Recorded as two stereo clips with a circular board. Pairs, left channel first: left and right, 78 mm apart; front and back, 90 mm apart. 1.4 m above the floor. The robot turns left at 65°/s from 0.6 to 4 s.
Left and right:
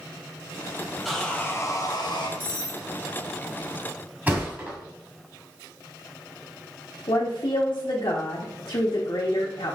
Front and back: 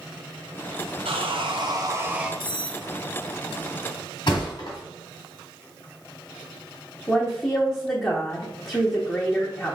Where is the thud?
25° right, 1.9 m.